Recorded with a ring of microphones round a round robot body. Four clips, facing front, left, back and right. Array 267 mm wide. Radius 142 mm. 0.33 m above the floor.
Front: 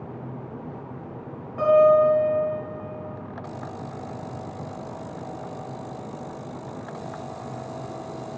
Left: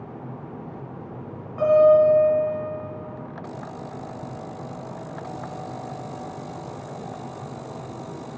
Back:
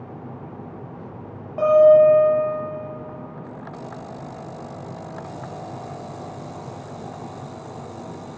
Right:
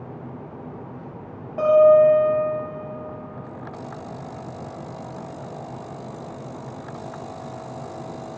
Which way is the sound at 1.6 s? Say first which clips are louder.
Right 2 dB, back 4 dB; 135° right.